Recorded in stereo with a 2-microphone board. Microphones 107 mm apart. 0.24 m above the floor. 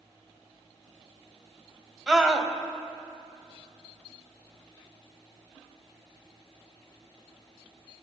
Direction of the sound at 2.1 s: 5° right (ahead or behind).